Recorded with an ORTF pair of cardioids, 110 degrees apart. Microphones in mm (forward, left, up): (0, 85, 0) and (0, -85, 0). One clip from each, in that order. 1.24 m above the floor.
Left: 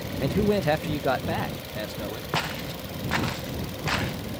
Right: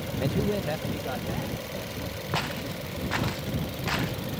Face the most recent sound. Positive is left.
turn(degrees=15)